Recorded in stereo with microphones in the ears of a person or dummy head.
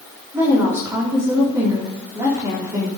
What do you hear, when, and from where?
0.3 s a woman speaking: 25° right (ahead or behind), 3 m